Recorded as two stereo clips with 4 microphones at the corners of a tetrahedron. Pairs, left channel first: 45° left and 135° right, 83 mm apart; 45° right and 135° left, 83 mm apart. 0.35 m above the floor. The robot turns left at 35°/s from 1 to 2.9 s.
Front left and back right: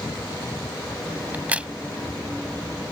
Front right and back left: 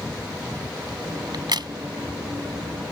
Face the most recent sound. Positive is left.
turn(degrees=105)